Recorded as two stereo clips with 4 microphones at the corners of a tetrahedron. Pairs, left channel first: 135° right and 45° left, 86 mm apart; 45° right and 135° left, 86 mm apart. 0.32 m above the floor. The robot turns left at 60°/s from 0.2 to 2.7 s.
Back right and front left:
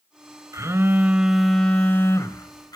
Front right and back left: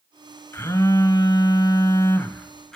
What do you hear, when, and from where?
0.5 s a phone buzzing: 5° left, 1.2 m; by 2.8 s 125° right, 1.2 m